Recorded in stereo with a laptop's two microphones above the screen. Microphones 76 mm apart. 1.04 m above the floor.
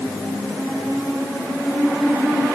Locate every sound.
Only background noise.